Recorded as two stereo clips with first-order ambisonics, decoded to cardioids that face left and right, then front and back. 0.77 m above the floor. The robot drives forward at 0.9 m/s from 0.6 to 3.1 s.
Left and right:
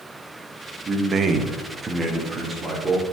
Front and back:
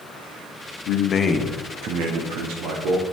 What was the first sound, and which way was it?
A man speaking, 25° right.